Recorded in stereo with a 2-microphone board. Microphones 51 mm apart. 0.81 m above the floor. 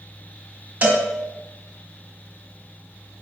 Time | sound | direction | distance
0.8 | a cowbell | 30° right (ahead or behind) | 1.1 m